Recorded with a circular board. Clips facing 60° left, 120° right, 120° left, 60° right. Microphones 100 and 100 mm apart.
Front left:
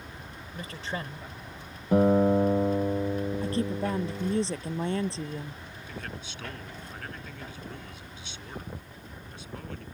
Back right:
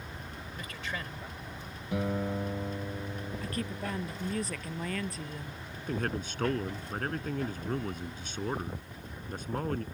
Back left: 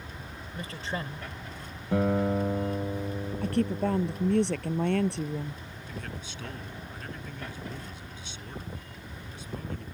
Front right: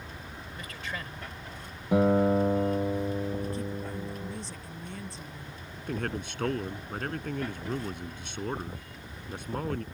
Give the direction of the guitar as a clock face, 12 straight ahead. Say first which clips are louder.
Front left 11 dB, front right 3 dB; 12 o'clock.